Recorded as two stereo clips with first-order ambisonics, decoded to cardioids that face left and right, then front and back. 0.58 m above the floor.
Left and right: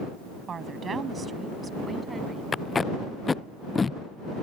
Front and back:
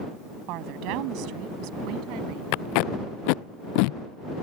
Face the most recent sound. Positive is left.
turn(degrees=15)